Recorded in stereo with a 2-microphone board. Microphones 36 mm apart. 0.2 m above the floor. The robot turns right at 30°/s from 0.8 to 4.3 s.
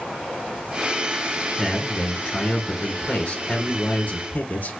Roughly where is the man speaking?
Ahead left.